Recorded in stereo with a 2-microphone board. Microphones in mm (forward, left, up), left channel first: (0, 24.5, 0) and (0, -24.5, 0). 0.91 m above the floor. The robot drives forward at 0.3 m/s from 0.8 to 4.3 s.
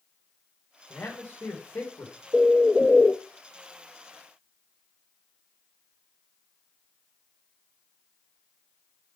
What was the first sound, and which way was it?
A man speaking, 70° left (ahead or behind).